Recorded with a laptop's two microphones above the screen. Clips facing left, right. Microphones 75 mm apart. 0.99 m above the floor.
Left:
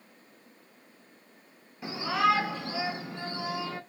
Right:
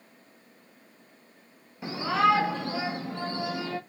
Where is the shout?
15° right (ahead or behind), 1.0 m; by 3.8 s 65° right (ahead or behind), 1.5 m.